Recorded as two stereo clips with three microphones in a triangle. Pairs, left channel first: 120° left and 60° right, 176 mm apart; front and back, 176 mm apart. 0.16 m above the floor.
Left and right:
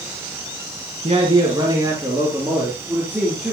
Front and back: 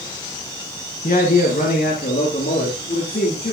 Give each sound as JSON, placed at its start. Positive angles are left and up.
{"t": 1.0, "sound": "a man speaking", "azimuth_deg": -15, "distance_m": 1.8}